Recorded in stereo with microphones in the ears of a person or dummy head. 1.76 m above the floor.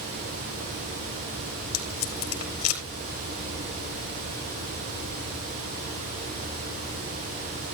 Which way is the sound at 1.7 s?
90° left.